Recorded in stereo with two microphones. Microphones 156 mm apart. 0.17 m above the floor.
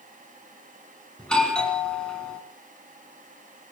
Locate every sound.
1.2 s a doorbell: 5° left (ahead or behind), 2.5 m